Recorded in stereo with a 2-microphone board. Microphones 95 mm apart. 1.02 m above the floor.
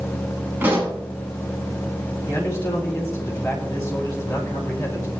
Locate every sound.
0.6 s a pop: 20° right (ahead or behind), 5.5 m
2.3 s a man speaking: 30° left (ahead or behind), 7 m